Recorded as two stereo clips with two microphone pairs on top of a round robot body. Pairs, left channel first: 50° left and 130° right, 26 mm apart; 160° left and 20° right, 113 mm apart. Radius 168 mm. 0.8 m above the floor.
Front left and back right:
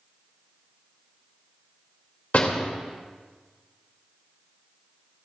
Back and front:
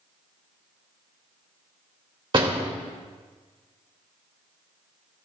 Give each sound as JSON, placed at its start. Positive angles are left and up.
{"t": 2.3, "sound": "a door slam", "azimuth_deg": 20, "distance_m": 2.5}